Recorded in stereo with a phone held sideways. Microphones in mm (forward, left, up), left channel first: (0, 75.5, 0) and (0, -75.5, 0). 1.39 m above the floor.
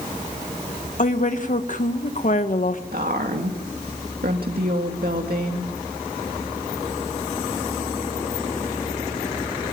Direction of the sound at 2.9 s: 75° right (ahead or behind).